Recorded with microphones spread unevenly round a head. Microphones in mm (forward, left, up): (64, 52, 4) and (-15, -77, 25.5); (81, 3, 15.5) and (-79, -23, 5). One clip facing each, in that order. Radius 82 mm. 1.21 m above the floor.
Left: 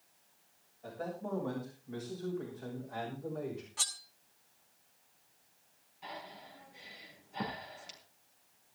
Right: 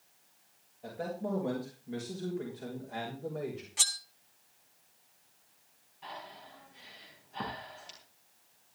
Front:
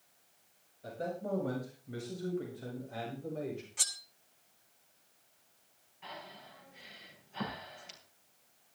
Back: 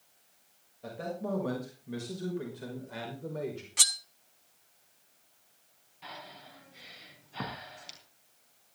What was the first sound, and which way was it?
A man speaking, straight behind.